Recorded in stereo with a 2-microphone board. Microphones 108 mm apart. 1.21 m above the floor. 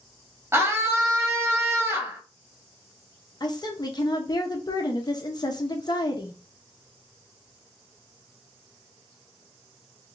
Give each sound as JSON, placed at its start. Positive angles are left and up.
{"t": 0.5, "sound": "a scream", "side_deg": -15, "distance_m": 0.7}
{"t": 3.4, "sound": "a woman speaking", "side_deg": 40, "distance_m": 0.8}